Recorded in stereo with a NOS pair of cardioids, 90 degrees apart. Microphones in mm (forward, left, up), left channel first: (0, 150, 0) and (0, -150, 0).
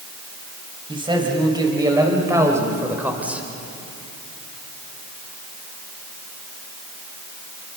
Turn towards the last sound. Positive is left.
turn(degrees=-5)